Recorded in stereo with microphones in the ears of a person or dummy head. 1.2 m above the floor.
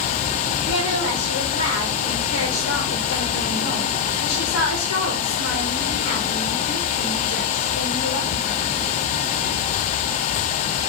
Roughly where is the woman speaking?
Left.